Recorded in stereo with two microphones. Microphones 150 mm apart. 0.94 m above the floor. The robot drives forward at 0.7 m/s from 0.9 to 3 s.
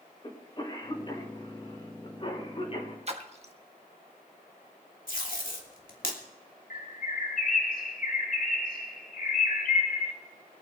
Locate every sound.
0.2 s a cough: 30° left (ahead or behind), 5 m; by 3.0 s 40° left (ahead or behind), 4 m
3.1 s a splash: 45° right (ahead or behind), 1.4 m
5.1 s tape being pulled: 65° left (ahead or behind), 2.5 m
6.7 s a bird: 70° left (ahead or behind), 2 m